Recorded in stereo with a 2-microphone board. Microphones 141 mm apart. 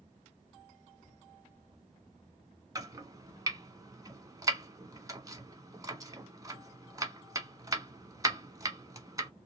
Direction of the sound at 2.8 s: 25° right (ahead or behind).